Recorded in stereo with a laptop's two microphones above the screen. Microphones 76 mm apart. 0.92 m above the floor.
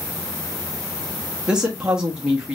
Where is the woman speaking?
10° right (ahead or behind), 0.5 m.